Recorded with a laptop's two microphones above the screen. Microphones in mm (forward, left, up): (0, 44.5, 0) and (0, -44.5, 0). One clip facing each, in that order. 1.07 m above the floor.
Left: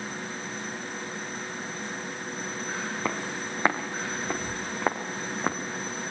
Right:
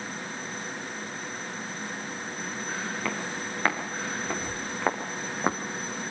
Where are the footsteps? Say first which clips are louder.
Left 1 dB; 25° left (ahead or behind), 5.5 m; by 5.6 s 10° right (ahead or behind), 3.5 m.